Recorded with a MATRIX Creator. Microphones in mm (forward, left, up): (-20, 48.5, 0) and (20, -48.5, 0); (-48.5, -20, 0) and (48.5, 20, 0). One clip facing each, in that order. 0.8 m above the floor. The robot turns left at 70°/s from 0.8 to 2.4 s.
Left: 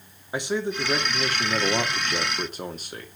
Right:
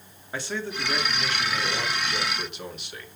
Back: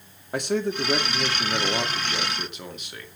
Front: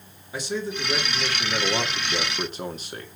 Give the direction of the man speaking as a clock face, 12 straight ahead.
6 o'clock.